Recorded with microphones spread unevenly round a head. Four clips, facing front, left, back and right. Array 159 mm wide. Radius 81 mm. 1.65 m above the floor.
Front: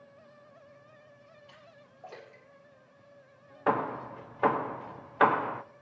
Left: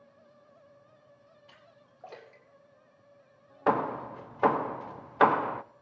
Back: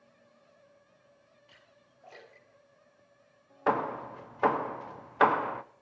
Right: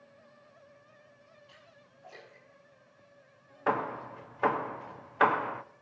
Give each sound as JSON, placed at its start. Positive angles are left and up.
{"t": 1.5, "sound": "a splash", "azimuth_deg": 60, "distance_m": 4.0}
{"t": 3.7, "sound": "hammering", "azimuth_deg": 95, "distance_m": 0.5}